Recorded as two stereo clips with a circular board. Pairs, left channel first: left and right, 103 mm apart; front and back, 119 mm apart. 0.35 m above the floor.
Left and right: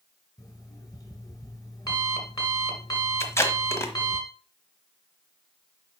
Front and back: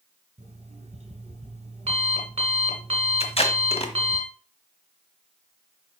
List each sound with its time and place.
0.4 s an alarm clock: 145° left, 2 m
3.2 s tape being pulled: 25° left, 1.3 m